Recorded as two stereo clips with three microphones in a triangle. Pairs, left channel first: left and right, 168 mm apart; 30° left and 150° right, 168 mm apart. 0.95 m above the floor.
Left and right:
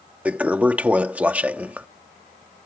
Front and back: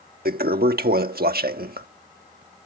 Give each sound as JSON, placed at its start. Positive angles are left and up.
{"t": 0.2, "sound": "a toilet flushing", "azimuth_deg": -170}